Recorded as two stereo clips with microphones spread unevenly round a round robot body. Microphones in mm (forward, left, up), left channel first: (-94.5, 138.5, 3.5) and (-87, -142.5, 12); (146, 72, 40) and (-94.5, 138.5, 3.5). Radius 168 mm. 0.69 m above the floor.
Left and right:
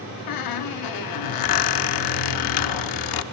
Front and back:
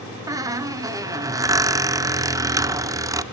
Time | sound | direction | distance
0.3 | a squeak | 85° left | 0.7 m